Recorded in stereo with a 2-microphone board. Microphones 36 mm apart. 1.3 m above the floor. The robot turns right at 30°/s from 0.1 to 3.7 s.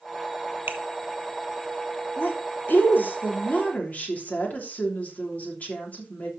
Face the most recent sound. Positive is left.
turn(degrees=130)